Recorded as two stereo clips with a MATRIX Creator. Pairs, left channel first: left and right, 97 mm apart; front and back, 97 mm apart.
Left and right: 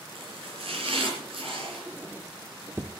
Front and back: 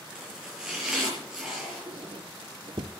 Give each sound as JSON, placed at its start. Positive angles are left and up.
{"t": 0.1, "sound": "chopping", "azimuth_deg": -95, "distance_m": 6.5}
{"t": 1.9, "sound": "a squeak", "azimuth_deg": -155, "distance_m": 1.1}